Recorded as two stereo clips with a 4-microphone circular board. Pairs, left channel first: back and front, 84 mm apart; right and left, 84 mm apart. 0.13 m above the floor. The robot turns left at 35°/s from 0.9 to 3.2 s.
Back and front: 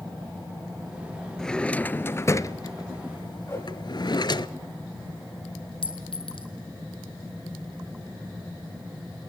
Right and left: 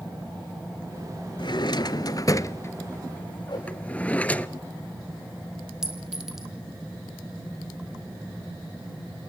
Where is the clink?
175° left, 2 m.